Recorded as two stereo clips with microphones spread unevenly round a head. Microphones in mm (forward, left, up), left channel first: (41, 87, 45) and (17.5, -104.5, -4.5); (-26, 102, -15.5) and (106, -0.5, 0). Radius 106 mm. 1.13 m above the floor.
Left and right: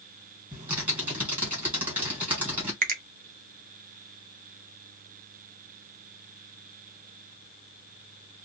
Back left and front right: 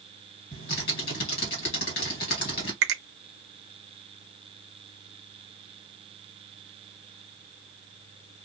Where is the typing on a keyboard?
175° right, 1.4 m.